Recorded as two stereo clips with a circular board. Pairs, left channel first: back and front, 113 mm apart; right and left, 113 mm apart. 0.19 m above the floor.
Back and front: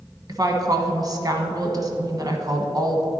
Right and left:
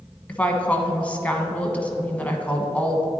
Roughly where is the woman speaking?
Ahead.